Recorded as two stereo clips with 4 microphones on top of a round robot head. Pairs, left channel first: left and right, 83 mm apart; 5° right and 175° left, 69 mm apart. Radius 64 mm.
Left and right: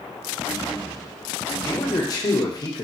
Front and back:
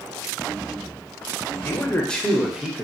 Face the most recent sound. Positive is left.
turn(degrees=110)